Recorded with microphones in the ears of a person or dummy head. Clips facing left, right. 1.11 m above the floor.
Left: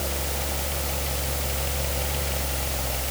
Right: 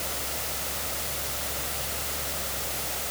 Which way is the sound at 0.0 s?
85° left.